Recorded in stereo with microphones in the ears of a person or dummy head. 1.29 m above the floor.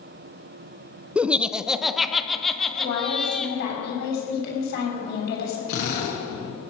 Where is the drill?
70° left (ahead or behind), 6 m.